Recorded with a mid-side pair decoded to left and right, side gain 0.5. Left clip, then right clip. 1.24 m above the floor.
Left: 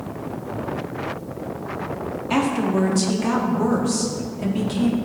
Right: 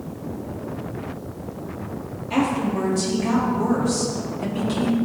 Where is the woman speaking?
60° left, 2 m; by 5.0 s 10° left, 2.5 m.